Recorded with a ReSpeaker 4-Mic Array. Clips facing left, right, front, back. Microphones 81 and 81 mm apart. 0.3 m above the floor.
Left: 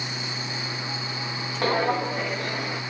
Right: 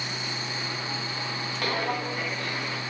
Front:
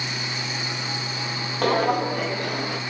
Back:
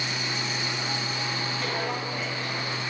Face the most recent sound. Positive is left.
turn(degrees=15)